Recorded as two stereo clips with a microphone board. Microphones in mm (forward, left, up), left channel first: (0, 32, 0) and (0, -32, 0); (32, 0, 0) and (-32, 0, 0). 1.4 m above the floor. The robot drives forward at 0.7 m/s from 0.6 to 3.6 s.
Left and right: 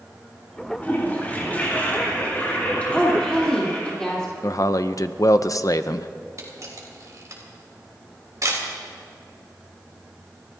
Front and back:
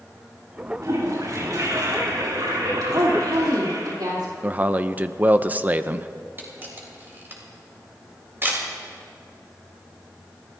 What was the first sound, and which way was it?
A toilet flushing, 150° left.